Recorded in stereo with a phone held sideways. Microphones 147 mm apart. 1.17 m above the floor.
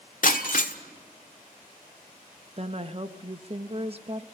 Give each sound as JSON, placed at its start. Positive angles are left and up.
{"t": 0.2, "sound": "breaking glass", "side_deg": 65, "distance_m": 1.4}
{"t": 2.6, "sound": "a woman speaking", "side_deg": -40, "distance_m": 1.1}